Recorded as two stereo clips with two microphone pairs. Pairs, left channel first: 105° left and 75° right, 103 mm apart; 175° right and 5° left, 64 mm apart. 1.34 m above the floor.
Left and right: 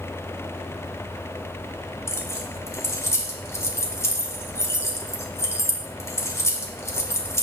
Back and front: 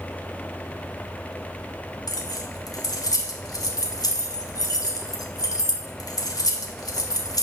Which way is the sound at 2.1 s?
170° left.